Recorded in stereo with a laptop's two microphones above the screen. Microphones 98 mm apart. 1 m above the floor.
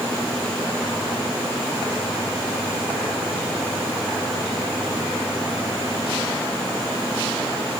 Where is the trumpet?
No trumpet in this recording.